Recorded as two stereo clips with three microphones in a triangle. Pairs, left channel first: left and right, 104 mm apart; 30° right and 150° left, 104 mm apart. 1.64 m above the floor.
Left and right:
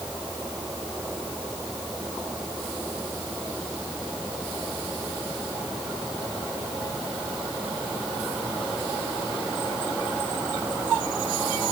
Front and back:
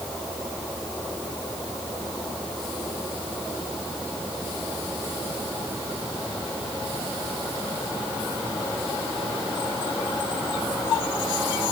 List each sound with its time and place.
Only background noise.